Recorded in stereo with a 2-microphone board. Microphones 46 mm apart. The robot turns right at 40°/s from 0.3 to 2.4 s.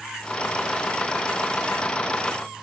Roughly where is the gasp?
No gasp in this recording.